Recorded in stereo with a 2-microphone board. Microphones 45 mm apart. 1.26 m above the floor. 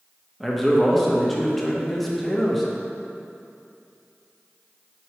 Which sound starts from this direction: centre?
A man speaking, at 0.4 s.